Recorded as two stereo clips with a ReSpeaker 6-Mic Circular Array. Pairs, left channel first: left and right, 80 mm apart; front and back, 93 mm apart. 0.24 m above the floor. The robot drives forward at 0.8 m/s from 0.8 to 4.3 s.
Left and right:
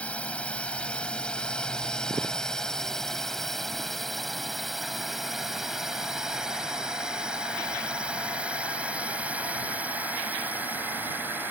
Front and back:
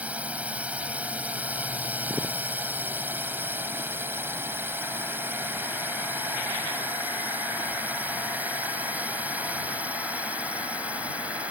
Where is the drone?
135° left; by 11.5 s 120° right.